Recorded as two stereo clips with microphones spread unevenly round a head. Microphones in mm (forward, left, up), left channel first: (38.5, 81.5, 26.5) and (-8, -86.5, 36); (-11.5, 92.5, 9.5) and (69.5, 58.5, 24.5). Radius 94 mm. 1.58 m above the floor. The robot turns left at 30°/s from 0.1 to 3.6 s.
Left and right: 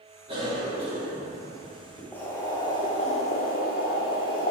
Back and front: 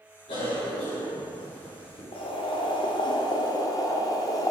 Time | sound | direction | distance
0.3 | a cough | 165° right | 3.5 m
2.1 | boiling | 155° left | 1.7 m